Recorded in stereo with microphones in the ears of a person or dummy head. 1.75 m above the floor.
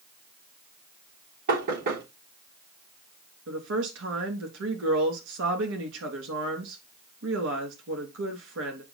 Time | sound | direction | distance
1.5 | knocking | 60° right (ahead or behind) | 4 m
3.5 | a woman speaking | 85° right | 3.5 m